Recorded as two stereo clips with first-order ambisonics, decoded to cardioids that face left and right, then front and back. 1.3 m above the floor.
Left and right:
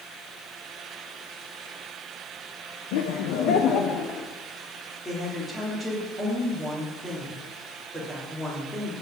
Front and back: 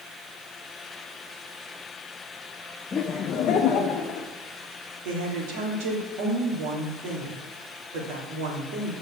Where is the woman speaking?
175° left, 3 m.